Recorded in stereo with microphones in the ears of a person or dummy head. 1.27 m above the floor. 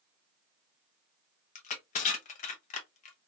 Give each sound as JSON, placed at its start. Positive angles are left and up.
{"t": 1.6, "sound": "crushing", "side_deg": 40, "distance_m": 0.6}